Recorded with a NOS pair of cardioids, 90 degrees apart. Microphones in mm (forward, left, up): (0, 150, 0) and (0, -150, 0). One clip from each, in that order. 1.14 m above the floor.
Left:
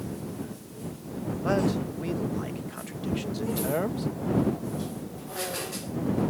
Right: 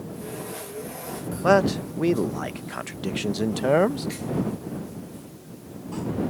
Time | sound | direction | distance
1.4 | a man speaking | 50° right | ?